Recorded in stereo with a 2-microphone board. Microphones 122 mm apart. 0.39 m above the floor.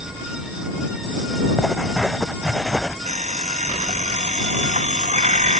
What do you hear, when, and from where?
1.6 s writing: centre (ahead or behind)
3.0 s an alarm clock: 90° right